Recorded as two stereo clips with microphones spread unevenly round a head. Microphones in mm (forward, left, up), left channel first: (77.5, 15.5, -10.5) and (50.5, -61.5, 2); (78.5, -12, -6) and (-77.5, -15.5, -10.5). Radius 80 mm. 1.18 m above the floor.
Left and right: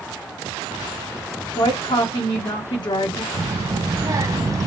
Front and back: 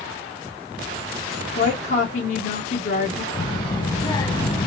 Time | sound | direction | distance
1.6 | a woman speaking | 35° left | 0.9 m
3.3 | a child speaking | 60° right | 0.9 m